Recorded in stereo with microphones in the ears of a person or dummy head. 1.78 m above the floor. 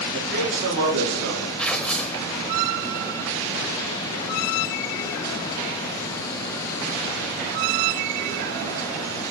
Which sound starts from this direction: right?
A man speaking, at 0.1 s.